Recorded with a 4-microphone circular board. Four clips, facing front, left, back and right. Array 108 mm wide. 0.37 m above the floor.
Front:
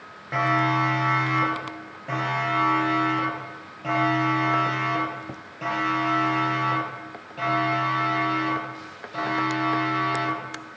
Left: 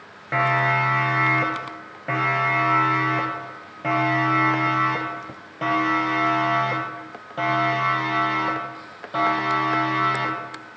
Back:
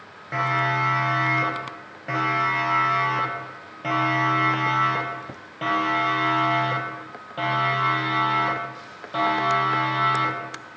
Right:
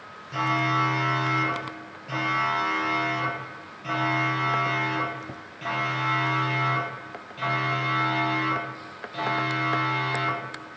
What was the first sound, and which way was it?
A siren, 90° left.